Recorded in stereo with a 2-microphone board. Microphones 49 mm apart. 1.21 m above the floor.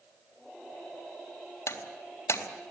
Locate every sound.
1.7 s breaking glass: 60° left (ahead or behind), 3.5 m